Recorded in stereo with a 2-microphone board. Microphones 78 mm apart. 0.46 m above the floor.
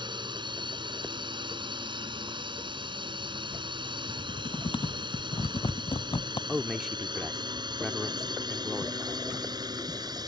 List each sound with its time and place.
0.0 s a drone: 70° right (ahead or behind); by 10.3 s 55° right (ahead or behind)
4.1 s typing on a keyboard: 75° left (ahead or behind)
6.5 s a man speaking: 5° right (ahead or behind)